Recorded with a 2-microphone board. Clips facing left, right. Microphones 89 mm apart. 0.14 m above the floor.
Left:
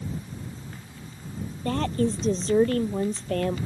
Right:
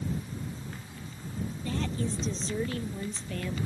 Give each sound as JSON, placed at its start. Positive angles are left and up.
{"t": 1.6, "sound": "a woman speaking", "side_deg": 55}